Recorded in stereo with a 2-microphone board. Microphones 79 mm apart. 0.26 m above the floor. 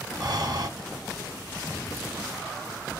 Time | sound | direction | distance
0.2 | breathing | 60° right (ahead or behind) | 1.9 m